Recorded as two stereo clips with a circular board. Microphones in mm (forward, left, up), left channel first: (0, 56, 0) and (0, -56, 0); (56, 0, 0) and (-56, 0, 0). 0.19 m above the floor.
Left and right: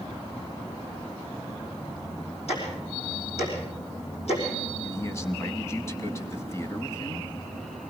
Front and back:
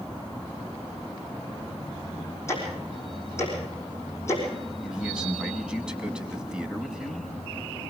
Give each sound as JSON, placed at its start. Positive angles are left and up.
{"t": 2.5, "sound": "ticking", "azimuth_deg": 65, "distance_m": 5.5}
{"t": 4.8, "sound": "a man speaking", "azimuth_deg": 105, "distance_m": 1.1}